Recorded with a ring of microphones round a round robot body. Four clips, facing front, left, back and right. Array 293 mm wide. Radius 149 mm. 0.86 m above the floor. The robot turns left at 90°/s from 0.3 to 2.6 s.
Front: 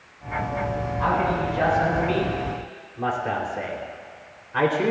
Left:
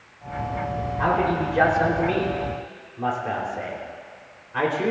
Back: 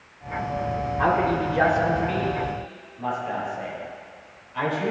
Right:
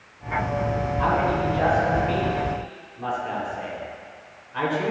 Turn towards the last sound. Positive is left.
turn(degrees=20)